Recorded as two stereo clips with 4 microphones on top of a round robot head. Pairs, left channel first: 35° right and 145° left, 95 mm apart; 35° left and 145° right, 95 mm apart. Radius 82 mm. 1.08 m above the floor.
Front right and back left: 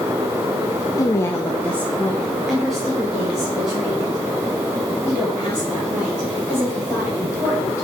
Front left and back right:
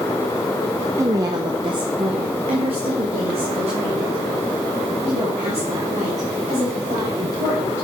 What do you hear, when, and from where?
1.0 s a woman speaking: 90° right, 0.6 m; by 7.8 s 135° right, 4 m